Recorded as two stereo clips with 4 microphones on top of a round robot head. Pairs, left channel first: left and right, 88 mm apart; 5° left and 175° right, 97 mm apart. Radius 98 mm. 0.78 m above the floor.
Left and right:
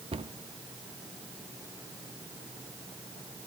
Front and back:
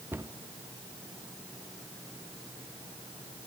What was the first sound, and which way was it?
A cupboard door, 105° right.